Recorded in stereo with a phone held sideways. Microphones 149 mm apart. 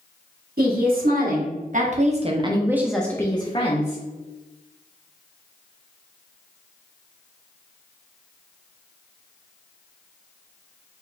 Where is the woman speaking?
70° right (ahead or behind), 1.3 m; by 4.0 s 50° left (ahead or behind), 0.7 m.